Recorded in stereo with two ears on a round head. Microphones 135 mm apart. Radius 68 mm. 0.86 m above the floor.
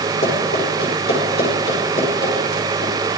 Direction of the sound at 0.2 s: 80° left.